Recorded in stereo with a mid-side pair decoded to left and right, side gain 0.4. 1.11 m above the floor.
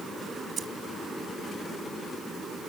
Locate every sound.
0.6 s keys jangling: 50° right